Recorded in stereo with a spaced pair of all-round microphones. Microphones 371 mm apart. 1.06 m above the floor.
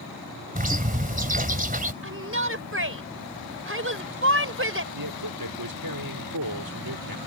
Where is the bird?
20° right (ahead or behind).